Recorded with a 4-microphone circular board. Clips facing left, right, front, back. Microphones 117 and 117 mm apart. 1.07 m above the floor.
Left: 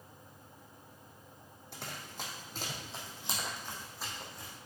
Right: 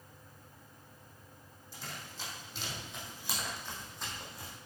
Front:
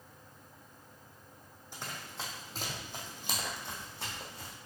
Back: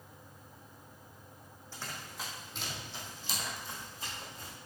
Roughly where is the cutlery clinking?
I don't hear cutlery clinking.